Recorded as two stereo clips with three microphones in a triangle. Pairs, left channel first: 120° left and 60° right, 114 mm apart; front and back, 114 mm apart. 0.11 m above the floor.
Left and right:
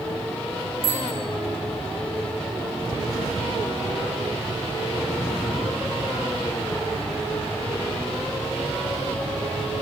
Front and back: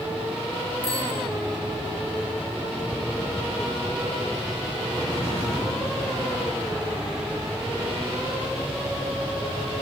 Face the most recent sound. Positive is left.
turn(degrees=-175)